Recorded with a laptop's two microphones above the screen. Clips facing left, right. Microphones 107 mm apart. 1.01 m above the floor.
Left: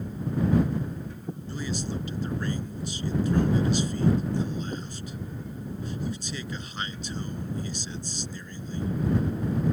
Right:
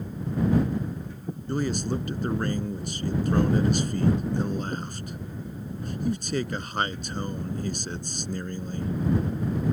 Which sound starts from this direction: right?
A man speaking, at 1.5 s.